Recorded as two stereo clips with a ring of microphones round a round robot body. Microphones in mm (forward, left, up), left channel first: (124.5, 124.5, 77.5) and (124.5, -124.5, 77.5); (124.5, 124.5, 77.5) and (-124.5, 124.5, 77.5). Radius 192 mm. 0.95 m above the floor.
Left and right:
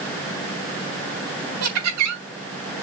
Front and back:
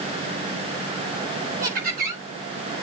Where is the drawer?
I don't hear a drawer.